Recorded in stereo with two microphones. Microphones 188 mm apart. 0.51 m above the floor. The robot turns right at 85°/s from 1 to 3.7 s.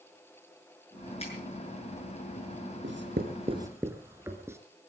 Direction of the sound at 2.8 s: 85° right.